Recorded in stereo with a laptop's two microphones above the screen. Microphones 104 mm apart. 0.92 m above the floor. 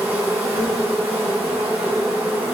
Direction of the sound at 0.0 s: 20° right (ahead or behind).